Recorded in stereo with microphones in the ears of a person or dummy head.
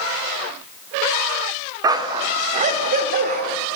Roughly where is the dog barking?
Centre.